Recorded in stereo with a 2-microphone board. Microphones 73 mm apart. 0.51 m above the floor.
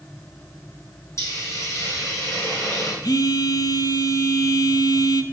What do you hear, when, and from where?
1.2 s a hiss: 45° left (ahead or behind), 3.5 m
3.0 s a phone buzzing: 65° left (ahead or behind), 0.7 m